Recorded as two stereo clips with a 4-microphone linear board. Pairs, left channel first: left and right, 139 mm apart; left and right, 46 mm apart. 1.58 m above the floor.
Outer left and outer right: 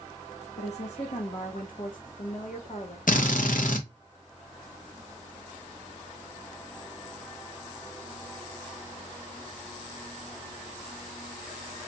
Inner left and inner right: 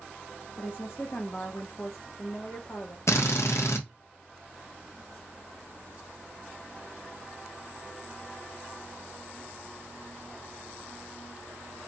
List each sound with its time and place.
0.6 s a woman speaking: 50° left (ahead or behind), 0.9 m
3.1 s a drill: 75° left (ahead or behind), 0.6 m